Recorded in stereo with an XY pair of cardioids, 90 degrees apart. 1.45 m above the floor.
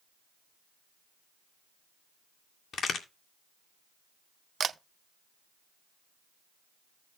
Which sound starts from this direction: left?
A crack, at 2.7 s.